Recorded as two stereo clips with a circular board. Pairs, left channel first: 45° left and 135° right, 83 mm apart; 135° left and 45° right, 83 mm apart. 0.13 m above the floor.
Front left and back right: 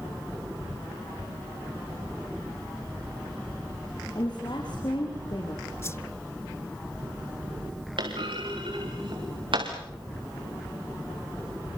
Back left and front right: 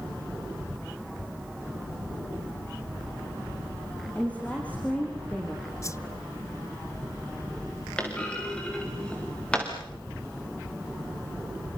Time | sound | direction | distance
4.2 | a woman speaking | 65° left | 4 m
5.8 | a whoosh | 95° left | 0.7 m
8.0 | a clunk | 145° right | 6 m